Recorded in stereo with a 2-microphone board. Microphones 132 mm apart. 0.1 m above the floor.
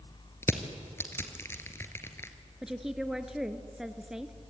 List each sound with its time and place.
0.4 s crushing: 20° left (ahead or behind), 1.7 m
2.6 s a woman speaking: 5° right (ahead or behind), 1.2 m